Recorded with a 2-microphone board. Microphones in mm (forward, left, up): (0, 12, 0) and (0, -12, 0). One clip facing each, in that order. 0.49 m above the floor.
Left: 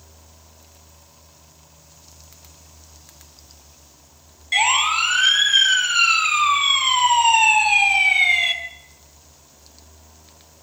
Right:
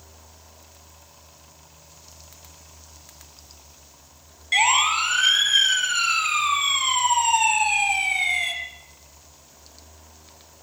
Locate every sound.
4.5 s a siren: centre (ahead or behind), 5 m; by 8.5 s 30° left (ahead or behind), 5.5 m